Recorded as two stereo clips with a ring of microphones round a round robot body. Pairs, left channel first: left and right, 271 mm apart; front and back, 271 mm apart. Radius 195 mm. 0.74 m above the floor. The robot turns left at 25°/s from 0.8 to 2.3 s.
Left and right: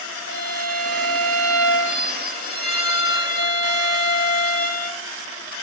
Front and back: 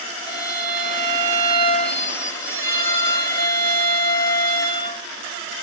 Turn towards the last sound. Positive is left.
turn(degrees=40)